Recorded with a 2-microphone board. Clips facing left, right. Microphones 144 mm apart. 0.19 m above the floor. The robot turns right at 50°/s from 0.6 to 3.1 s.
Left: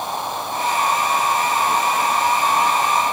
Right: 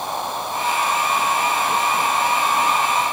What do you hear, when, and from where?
Only background noise.